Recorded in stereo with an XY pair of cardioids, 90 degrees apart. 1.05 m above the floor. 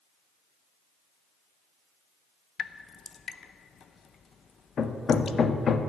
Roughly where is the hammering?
Ahead left.